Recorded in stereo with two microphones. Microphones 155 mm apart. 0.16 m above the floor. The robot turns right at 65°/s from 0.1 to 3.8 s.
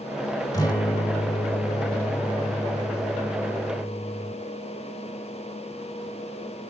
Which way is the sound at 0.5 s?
35° left.